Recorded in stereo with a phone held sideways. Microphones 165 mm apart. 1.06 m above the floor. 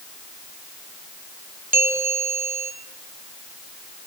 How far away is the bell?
About 3 m.